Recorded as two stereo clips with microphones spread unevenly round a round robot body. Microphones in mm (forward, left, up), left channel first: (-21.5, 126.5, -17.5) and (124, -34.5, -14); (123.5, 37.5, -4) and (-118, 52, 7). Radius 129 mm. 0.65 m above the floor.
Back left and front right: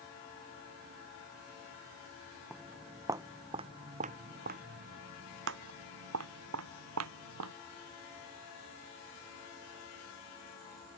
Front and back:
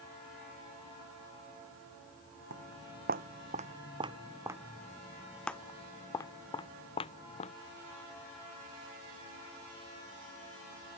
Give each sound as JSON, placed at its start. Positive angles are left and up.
{"t": 2.5, "sound": "footsteps", "azimuth_deg": -135}